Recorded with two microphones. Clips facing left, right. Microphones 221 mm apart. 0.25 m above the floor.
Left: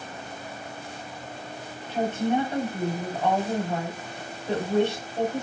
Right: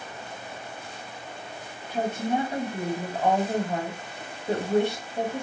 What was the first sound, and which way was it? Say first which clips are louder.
A woman speaking: left 2 dB; 10° right (ahead or behind).